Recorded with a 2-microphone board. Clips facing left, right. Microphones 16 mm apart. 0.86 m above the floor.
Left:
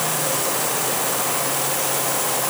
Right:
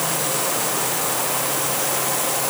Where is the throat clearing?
No throat clearing in this recording.